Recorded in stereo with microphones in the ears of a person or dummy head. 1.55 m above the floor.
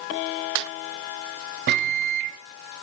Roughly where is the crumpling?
No crumpling in this recording.